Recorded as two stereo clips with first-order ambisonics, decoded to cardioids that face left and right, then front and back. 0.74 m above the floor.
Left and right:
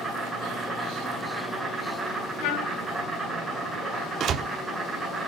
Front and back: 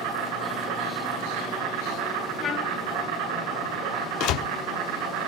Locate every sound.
0.0 s an insect: 165° right, 9.5 m
2.4 s a trumpet: 65° left, 4.5 m
4.2 s a door slam: 35° right, 1.0 m